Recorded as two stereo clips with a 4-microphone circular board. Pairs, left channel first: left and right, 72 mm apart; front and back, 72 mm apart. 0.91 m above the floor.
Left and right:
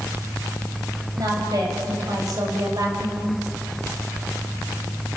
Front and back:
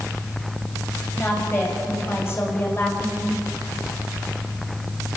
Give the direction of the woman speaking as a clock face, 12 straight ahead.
2 o'clock.